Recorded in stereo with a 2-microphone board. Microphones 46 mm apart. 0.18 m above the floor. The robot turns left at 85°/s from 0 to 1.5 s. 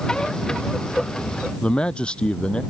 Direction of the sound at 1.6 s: 25° left (ahead or behind).